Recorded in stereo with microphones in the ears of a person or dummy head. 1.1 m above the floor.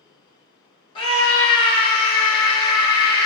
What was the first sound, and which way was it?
A scream, 35° left (ahead or behind).